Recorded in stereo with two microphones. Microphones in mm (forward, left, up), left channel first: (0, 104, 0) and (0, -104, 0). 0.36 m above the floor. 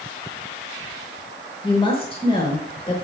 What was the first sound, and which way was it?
A woman speaking, 25° left (ahead or behind).